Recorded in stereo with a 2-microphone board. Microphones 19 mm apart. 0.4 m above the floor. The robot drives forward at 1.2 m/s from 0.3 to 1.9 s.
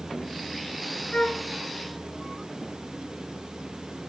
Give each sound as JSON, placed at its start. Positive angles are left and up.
{"t": 1.1, "sound": "a flute", "side_deg": 55, "distance_m": 0.8}